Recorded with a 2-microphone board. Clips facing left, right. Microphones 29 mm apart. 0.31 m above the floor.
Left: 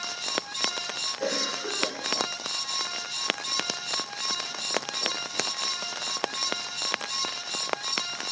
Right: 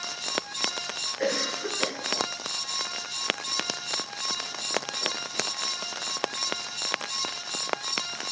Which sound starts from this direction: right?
A cough, at 1.2 s.